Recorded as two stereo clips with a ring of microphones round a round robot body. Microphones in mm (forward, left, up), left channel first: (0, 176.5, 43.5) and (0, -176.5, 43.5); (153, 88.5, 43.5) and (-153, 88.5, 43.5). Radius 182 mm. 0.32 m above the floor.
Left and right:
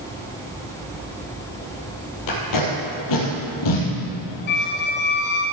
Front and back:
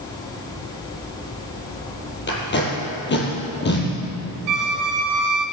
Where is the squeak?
155° left, 1.1 m.